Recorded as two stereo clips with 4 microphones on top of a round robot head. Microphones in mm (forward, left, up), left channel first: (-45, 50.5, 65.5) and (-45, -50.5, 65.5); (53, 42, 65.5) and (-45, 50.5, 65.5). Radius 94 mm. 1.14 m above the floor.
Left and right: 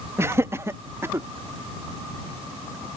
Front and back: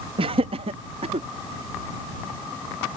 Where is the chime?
No chime in this recording.